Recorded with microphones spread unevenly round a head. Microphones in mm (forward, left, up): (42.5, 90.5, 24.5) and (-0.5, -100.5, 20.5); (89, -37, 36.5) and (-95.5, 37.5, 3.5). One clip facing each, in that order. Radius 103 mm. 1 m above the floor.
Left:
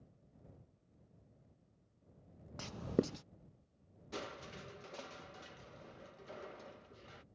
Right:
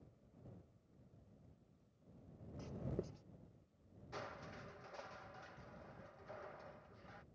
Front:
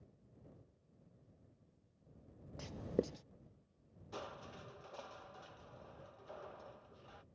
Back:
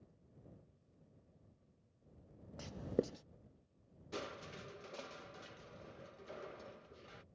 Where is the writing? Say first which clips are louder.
Left 10 dB, even; 70° left.